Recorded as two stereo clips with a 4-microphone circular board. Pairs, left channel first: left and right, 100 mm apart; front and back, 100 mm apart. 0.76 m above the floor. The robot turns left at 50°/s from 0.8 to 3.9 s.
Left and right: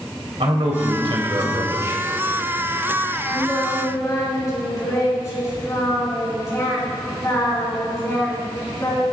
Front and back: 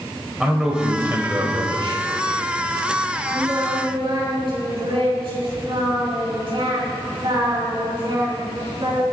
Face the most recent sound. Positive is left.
turn(degrees=145)